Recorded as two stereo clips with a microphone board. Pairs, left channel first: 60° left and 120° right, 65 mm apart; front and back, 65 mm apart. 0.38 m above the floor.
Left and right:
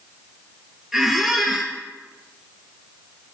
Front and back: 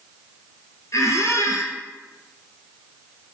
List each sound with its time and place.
0.9 s a squeak: 35° right, 1.2 m